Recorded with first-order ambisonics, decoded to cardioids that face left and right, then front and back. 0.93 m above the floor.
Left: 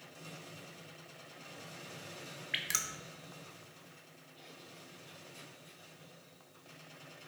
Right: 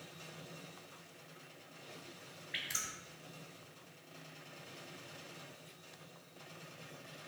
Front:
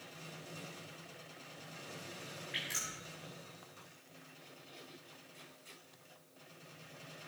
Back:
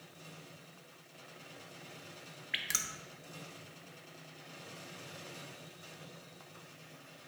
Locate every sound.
2.5 s dripping: 130° left, 1.2 m